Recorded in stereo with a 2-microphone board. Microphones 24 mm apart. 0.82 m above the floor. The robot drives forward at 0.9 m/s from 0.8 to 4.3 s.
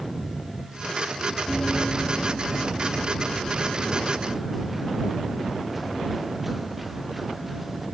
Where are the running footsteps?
25° left (ahead or behind); by 7.8 s 5° right (ahead or behind).